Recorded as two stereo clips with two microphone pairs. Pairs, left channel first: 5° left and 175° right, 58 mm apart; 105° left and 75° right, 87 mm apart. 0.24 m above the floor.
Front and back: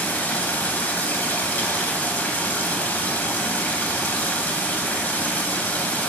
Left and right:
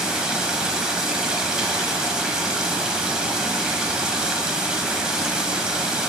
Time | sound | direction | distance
0.0 | running water | straight ahead | 0.9 m